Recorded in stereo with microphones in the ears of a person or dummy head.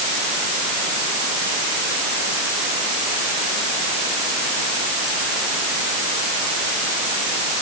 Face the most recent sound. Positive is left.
No sound to turn to.